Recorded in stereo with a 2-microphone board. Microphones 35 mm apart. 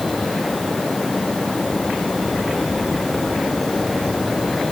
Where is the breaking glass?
No breaking glass in this recording.